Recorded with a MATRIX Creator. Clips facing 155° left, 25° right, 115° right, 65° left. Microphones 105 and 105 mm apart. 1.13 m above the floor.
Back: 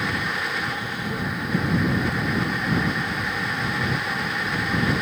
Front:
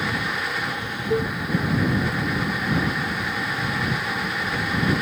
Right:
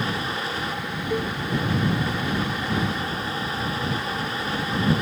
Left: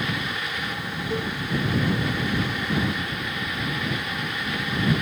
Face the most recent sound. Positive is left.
turn(degrees=-30)